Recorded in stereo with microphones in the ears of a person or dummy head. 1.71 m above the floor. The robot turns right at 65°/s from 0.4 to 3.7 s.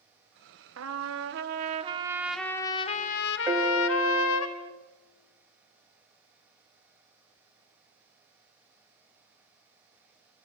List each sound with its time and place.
0.8 s a trumpet: 105° right, 1.2 m; by 4.5 s 90° left, 1.2 m
3.5 s a piano: 15° right (ahead or behind), 1.0 m; by 4.7 s 30° right (ahead or behind), 1.0 m